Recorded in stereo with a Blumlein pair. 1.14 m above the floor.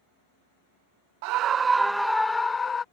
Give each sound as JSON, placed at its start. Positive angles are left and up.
{"t": 1.2, "sound": "a scream", "azimuth_deg": -45}